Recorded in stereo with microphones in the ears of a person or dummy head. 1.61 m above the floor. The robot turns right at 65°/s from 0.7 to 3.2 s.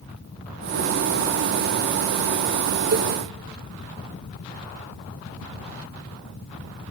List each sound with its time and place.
2.9 s a cowbell: 55° right (ahead or behind), 1.1 m; by 3.1 s 45° right (ahead or behind), 1.1 m